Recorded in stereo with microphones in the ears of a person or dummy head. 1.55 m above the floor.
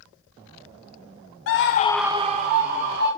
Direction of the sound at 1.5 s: 65° left (ahead or behind).